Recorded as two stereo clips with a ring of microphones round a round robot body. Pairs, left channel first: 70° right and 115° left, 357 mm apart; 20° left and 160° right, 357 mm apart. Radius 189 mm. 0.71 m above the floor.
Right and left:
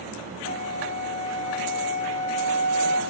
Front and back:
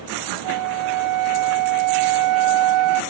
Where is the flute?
140° right, 1.0 m.